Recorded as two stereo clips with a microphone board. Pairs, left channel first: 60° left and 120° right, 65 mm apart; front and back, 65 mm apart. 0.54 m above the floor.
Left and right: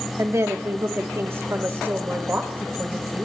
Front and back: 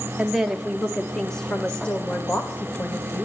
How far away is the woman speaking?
About 1.2 m.